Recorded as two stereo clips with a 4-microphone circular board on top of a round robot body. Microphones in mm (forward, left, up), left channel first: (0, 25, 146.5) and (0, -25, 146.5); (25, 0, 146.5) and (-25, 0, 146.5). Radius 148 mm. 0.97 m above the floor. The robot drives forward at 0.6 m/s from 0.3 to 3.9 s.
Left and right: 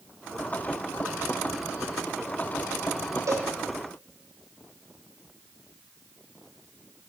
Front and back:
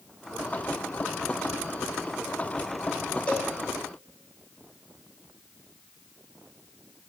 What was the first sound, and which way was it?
A cowbell, 65° right.